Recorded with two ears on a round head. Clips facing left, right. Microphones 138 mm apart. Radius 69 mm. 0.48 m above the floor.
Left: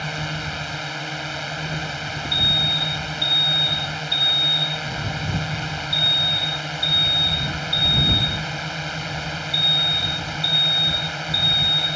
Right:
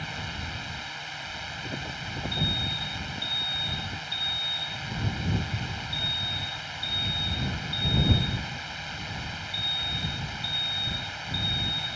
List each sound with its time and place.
0.0 s a drone: 60° left (ahead or behind)
2.3 s an alarm: 70° left (ahead or behind)